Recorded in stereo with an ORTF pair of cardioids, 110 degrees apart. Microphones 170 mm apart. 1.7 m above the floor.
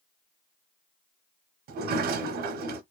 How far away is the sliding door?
About 0.7 m.